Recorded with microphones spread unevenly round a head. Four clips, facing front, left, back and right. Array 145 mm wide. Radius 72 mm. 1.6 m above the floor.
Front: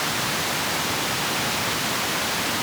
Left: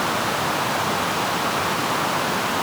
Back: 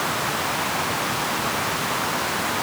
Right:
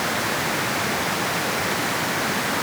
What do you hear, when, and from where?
Only background noise.